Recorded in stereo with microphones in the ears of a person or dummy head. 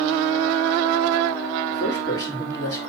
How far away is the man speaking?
About 4 m.